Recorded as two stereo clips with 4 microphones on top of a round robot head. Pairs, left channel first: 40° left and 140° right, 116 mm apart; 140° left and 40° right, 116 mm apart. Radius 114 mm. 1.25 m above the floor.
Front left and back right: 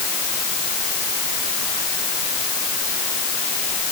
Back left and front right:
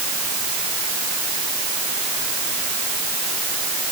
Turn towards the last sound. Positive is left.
No sound to turn to.